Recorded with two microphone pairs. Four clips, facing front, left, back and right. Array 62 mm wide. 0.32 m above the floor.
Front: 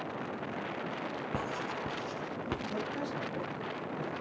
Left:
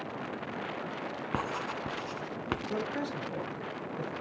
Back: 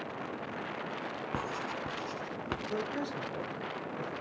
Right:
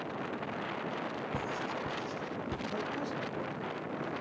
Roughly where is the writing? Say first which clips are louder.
Left 5 dB, back 1 dB; left.